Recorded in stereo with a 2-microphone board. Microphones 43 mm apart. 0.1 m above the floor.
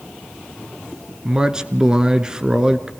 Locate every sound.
1.2 s a man speaking: 15° right (ahead or behind), 1.1 m